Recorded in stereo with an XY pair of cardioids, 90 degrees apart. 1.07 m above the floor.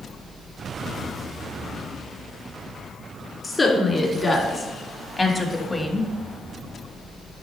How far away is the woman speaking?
About 2.5 m.